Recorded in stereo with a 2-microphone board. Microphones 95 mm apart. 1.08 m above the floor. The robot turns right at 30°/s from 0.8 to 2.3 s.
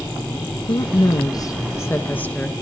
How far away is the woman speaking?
About 0.9 m.